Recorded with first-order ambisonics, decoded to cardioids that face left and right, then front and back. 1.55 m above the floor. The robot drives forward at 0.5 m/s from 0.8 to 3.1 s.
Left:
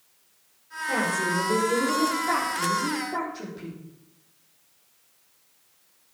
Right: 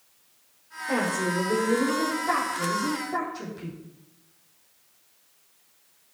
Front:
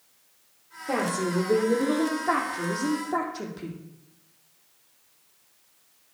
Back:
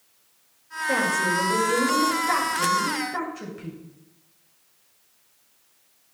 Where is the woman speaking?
5° left, 4.5 m.